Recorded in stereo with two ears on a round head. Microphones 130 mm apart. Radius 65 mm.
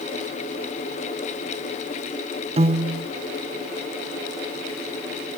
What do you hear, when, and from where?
2.6 s a piano: 40° right (ahead or behind), 0.6 m